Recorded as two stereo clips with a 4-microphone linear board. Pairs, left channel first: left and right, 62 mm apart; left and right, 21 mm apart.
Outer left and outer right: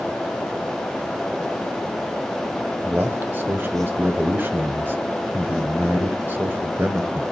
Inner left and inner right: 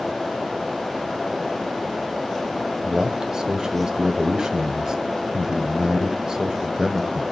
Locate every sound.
2.8 s a man speaking: 35° right (ahead or behind), 1.2 m